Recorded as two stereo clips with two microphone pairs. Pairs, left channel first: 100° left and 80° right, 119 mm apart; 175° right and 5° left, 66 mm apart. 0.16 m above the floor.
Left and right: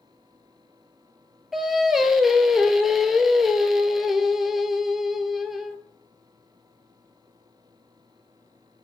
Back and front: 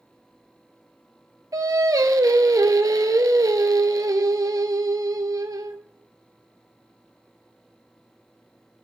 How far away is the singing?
About 0.6 m.